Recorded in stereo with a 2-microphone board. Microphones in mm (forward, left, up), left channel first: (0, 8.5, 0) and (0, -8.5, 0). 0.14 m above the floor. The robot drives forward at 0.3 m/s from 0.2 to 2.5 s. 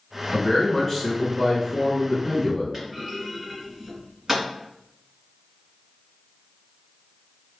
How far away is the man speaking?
About 1.3 m.